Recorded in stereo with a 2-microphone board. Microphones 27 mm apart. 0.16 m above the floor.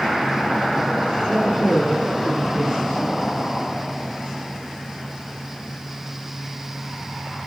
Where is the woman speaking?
15° left (ahead or behind), 6 m.